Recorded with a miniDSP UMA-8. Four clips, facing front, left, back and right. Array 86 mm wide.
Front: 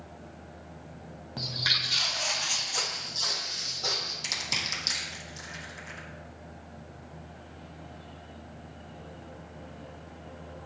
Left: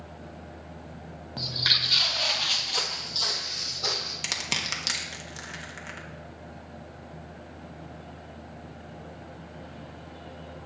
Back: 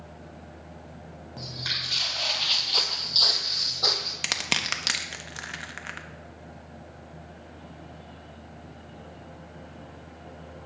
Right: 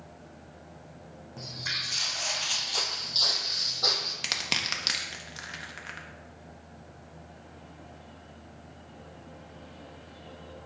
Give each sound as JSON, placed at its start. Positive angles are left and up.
{"t": 1.4, "sound": "footsteps", "azimuth_deg": 65, "distance_m": 1.2}
{"t": 4.2, "sound": "crushing", "azimuth_deg": -175, "distance_m": 0.9}